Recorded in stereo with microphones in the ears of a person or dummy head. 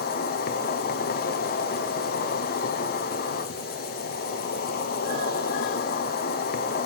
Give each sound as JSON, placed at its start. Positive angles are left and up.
{"t": 0.0, "sound": "an insect", "side_deg": 50, "distance_m": 1.1}